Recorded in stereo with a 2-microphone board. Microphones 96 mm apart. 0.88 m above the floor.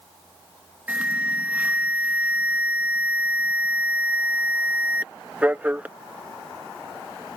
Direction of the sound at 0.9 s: 15° right (ahead or behind).